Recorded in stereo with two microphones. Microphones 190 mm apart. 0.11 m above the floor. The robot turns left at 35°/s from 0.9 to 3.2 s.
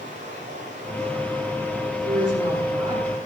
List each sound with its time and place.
0.0 s running water: 140° right, 8 m; by 3.3 s 135° left, 8 m
2.0 s a woman speaking: 140° right, 6.5 m; by 3.2 s straight behind, 6.5 m